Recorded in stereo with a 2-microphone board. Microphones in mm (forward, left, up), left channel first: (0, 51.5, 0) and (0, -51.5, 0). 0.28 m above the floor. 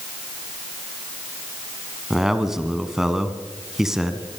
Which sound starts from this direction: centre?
A man speaking, at 2.1 s.